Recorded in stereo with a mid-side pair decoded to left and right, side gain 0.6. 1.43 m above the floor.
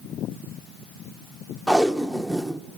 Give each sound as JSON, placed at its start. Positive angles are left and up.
{"t": 1.7, "sound": "tape being pulled", "azimuth_deg": 0, "distance_m": 0.6}